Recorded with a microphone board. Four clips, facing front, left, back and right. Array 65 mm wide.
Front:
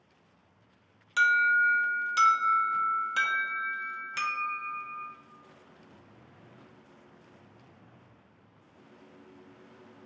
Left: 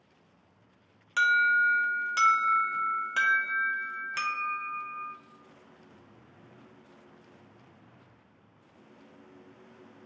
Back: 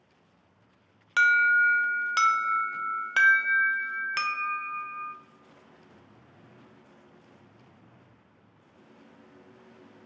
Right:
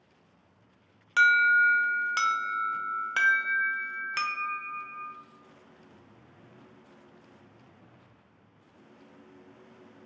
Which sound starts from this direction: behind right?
An alarm, at 1.2 s.